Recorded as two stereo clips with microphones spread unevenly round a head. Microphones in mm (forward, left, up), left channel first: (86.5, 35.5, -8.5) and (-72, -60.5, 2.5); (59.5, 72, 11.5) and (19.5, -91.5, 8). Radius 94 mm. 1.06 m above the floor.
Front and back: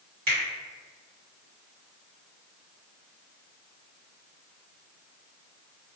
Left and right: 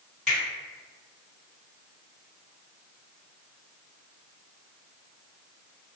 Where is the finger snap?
165° left, 1.7 m.